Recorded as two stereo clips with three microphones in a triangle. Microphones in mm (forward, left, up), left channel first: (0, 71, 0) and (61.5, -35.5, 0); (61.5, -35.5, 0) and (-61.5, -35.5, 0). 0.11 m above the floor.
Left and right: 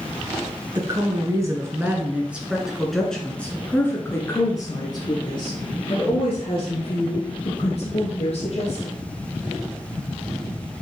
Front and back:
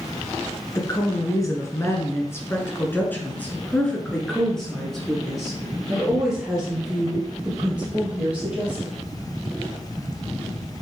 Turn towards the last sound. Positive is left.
turn(degrees=100)